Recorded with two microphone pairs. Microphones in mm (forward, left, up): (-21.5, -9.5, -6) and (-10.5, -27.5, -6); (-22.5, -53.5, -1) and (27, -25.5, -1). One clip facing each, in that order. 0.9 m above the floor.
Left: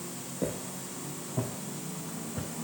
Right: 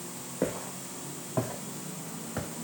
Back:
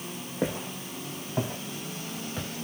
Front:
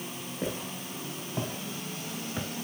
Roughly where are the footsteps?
Right.